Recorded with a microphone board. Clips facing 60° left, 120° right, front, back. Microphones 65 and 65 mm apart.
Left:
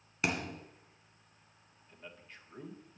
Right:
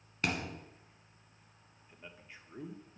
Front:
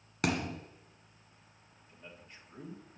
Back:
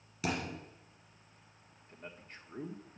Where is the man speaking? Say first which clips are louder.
Left 1 dB, back 3 dB; 165° left, 1.5 m.